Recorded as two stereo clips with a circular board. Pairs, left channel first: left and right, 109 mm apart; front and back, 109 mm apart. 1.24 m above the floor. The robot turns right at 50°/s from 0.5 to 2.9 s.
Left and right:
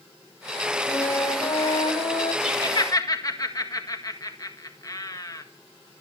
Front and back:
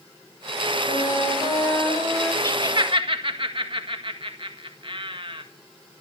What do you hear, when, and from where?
0.9 s a flute: 20° left, 2.5 m; by 2.3 s 95° left, 2.5 m
2.4 s laughter: 120° left, 1.8 m; by 5.4 s 145° left, 1.8 m